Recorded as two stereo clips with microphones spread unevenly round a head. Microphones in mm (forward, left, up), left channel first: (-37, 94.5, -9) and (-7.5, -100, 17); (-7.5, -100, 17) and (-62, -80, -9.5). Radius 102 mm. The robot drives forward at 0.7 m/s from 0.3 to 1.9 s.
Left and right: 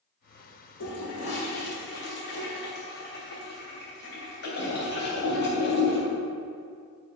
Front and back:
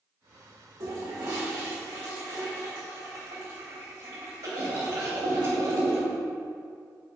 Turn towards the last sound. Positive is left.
turn(degrees=140)